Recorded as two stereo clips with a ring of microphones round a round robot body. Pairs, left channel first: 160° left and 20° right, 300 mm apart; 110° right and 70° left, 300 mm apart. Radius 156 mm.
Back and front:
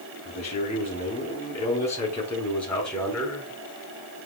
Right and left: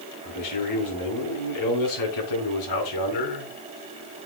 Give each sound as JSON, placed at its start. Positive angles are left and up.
{"t": 0.2, "sound": "a man speaking", "azimuth_deg": -135, "distance_m": 3.0}